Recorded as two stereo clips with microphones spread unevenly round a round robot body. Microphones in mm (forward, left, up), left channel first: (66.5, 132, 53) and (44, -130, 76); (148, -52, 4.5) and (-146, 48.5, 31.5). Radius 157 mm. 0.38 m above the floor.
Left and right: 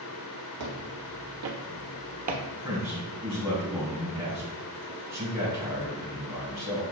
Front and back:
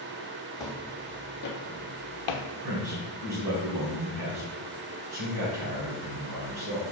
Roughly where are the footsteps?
Right.